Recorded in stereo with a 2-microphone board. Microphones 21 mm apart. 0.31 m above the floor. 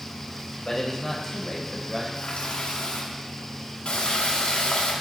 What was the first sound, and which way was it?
A man speaking, 30° left (ahead or behind).